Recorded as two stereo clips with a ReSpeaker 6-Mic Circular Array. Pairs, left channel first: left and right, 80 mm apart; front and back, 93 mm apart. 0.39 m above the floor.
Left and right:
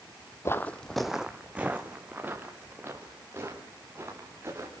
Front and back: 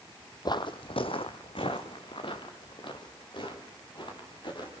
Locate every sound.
0.5 s footsteps: 40° left, 0.8 m; by 4.7 s 35° right, 5.5 m